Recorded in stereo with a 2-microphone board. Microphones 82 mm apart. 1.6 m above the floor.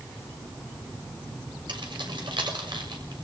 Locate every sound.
1.7 s keys jangling: 75° right (ahead or behind), 6 m